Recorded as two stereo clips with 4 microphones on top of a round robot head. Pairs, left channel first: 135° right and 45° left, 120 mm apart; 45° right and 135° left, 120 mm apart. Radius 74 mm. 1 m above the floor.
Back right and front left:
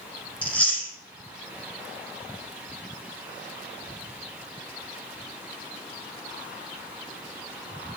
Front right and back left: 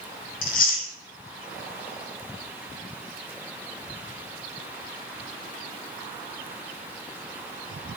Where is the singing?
I don't hear singing.